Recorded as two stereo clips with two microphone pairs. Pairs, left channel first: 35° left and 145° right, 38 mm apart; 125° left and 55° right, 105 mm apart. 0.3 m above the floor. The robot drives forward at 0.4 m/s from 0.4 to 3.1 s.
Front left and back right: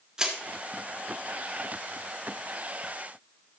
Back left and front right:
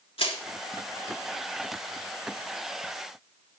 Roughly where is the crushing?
Behind left.